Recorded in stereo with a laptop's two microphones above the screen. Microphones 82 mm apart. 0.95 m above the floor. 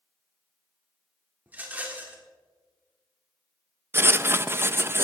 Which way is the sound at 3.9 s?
30° right (ahead or behind).